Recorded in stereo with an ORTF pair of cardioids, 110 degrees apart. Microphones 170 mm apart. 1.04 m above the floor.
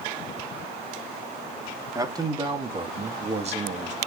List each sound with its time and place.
1.9 s a man speaking: 20° right, 2.5 m; by 4.0 s 50° right, 2.5 m